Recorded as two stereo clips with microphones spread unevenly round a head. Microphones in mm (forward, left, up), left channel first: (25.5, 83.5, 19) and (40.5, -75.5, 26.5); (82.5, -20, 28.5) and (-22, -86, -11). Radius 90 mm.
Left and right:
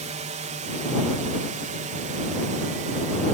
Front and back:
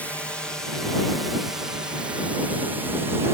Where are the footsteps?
No footsteps in this recording.